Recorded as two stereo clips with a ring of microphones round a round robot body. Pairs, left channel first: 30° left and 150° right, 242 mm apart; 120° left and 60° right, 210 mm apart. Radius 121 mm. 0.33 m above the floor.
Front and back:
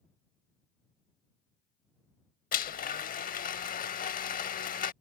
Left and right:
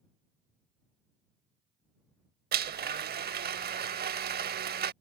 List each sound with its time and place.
2.5 s a blender: 20° right